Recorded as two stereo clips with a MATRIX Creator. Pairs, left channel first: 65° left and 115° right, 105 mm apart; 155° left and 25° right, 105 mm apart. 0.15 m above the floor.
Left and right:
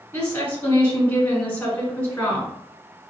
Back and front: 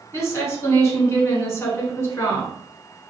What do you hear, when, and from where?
0.1 s a woman speaking: 125° left, 1.2 m